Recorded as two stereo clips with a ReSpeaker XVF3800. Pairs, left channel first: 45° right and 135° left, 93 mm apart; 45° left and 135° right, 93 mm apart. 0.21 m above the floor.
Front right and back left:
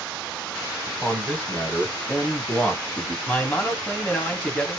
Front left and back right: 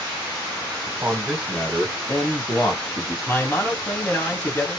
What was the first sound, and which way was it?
A man speaking, 90° right.